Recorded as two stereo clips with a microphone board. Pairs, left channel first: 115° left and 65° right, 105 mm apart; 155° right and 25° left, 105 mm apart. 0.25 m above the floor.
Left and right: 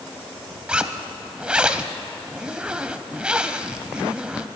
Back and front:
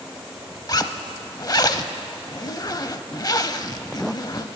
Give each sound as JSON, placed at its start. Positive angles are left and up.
{"t": 0.7, "sound": "a zipper", "azimuth_deg": -140, "distance_m": 0.5}